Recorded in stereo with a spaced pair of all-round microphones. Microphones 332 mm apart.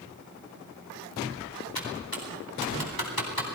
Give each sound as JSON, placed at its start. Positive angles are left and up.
{"t": 1.8, "sound": "typing on a keyboard", "side_deg": 85, "distance_m": 4.0}